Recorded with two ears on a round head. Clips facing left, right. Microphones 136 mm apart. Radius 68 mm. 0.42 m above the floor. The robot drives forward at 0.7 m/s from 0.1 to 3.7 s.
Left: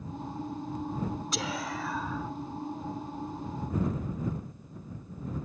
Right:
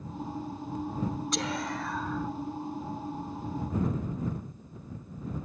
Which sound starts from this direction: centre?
Whispering, at 1.3 s.